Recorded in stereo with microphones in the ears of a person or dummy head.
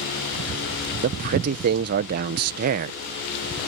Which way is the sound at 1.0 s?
45° right (ahead or behind).